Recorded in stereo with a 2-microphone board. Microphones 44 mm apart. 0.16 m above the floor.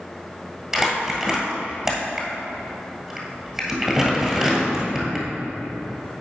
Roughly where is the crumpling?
Centre.